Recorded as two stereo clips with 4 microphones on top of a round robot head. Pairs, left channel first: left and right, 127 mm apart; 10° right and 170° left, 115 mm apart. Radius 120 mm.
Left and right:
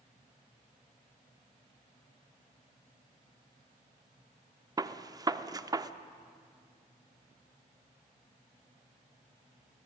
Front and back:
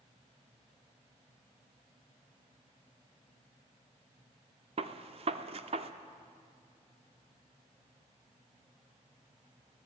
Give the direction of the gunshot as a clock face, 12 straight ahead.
5 o'clock.